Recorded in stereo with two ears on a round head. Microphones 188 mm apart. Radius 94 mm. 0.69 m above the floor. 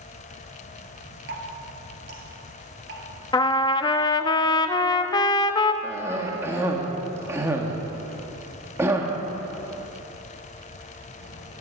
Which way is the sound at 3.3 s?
20° left (ahead or behind).